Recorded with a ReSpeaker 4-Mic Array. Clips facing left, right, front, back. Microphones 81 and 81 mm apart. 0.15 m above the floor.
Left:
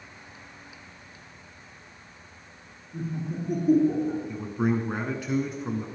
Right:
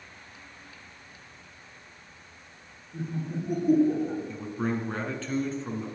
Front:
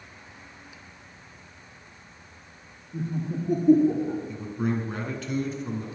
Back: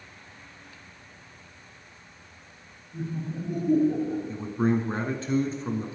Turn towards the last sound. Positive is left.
turn(degrees=155)